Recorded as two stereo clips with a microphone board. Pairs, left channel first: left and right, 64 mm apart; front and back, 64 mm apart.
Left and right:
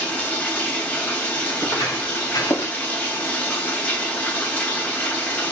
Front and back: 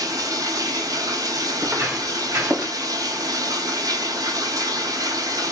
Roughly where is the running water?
Behind left.